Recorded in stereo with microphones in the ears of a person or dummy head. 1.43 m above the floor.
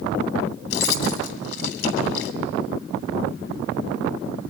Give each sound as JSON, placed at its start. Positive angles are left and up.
{"t": 0.7, "sound": "keys jangling", "side_deg": 65, "distance_m": 2.5}